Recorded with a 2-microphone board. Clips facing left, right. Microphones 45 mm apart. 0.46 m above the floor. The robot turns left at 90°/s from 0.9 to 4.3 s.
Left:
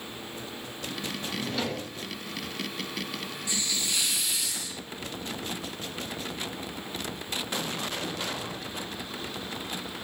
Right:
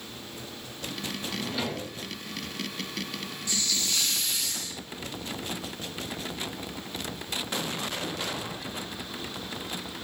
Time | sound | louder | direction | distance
1.3 | a drawer | left 1 dB | 20° left | 3 m
3.5 | a hiss | right 1 dB | 20° left (ahead or behind) | 0.9 m